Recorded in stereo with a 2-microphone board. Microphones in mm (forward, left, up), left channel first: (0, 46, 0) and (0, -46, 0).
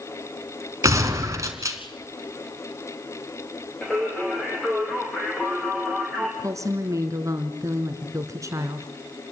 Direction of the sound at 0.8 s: 35° right (ahead or behind).